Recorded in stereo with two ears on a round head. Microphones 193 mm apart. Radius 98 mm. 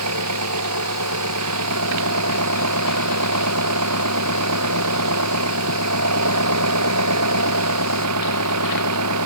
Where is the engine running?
80° right.